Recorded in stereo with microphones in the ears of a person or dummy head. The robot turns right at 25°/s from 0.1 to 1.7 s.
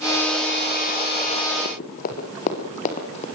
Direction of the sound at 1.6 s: 50° left (ahead or behind).